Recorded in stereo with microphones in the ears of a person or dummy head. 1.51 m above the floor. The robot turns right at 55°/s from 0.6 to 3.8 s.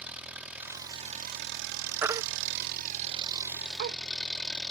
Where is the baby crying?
10° right (ahead or behind); by 4.0 s 55° right (ahead or behind).